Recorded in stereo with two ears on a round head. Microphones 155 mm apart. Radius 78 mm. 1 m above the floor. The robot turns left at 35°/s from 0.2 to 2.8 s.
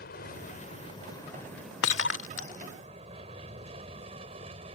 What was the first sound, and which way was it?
An aircraft, 55° left (ahead or behind).